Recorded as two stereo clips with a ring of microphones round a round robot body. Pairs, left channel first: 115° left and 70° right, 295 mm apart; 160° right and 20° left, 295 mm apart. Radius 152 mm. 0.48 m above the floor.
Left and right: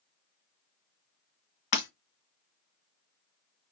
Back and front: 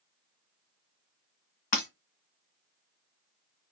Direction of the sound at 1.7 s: 140° left.